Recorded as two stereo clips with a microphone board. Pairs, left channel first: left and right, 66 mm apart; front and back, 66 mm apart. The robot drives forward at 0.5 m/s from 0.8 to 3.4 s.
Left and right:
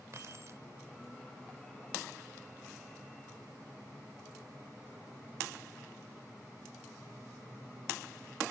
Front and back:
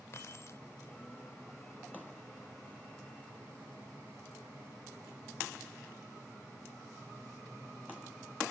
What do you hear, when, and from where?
0.1 s keys jangling: 45° right